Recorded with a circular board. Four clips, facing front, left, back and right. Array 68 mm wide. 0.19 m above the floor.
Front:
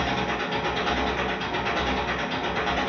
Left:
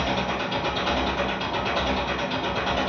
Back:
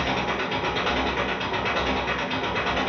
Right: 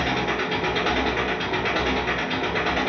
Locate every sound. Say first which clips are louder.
0.0 s an engine running: right 2 dB, back 1 dB; 100° right, 1.6 m